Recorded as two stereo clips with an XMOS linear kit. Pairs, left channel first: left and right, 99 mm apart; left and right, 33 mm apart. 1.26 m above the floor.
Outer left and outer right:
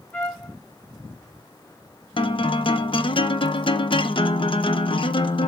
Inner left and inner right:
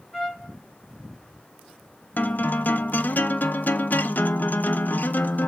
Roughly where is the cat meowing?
I don't hear a cat meowing.